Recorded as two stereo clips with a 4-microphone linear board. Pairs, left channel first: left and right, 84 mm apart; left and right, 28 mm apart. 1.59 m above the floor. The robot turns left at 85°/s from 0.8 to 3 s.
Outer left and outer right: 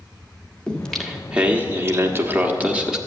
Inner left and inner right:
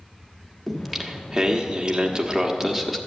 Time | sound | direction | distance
0.7 | singing | 10° left (ahead or behind) | 1.2 m